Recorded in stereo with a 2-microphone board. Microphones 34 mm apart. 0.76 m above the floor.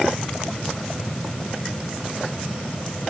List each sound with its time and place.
Only background noise.